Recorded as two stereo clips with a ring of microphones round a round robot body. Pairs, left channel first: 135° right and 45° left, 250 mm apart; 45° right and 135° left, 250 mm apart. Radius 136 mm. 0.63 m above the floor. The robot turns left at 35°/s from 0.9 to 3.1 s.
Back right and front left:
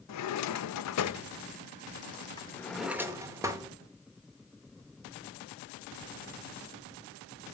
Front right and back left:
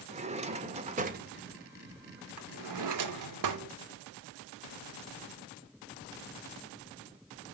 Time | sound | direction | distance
0.1 | a drawer | 160° right | 0.9 m